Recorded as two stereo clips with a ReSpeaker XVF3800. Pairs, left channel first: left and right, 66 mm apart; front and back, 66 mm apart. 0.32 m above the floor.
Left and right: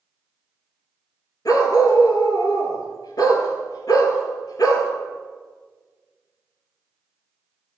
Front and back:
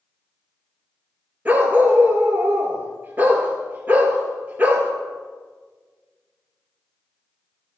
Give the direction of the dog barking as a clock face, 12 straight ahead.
8 o'clock.